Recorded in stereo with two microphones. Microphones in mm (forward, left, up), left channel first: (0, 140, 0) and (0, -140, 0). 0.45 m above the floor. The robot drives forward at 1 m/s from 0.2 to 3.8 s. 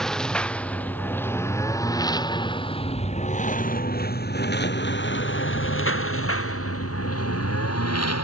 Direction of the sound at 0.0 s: Centre (ahead or behind).